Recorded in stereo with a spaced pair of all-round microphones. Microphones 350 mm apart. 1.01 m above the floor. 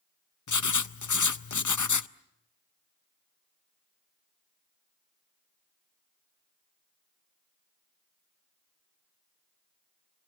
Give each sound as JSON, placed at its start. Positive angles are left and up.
{"t": 0.5, "sound": "writing", "side_deg": 55, "distance_m": 0.5}